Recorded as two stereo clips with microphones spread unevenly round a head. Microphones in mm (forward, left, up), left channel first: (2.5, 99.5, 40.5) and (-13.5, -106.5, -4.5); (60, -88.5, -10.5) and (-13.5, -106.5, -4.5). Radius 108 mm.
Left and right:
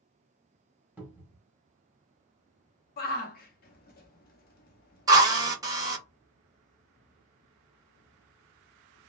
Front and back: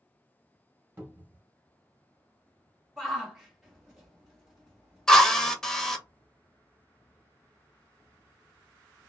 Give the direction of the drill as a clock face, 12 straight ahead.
2 o'clock.